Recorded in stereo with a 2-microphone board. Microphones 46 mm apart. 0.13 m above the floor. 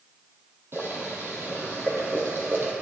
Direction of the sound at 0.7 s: 60° right (ahead or behind).